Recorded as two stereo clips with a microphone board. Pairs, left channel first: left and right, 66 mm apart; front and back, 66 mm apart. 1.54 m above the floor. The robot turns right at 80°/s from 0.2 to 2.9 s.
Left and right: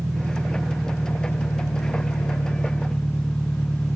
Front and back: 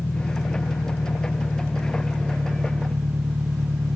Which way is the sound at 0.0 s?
50° right.